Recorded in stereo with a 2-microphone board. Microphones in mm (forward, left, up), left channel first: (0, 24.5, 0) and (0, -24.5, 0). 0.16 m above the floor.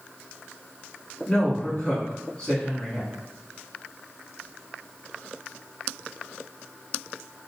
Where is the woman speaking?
20° left (ahead or behind), 1.2 m.